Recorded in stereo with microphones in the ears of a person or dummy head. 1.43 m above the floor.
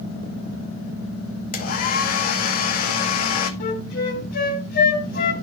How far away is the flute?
About 3 m.